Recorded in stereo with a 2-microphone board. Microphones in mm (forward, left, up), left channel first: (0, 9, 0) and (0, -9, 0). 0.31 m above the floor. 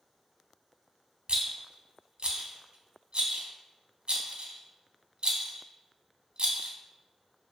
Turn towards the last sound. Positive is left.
turn(degrees=-70)  # may be behind; listen again after turning